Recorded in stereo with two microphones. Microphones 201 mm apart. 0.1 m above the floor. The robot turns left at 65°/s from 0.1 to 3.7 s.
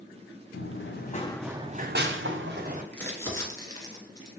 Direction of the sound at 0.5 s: 70° left (ahead or behind).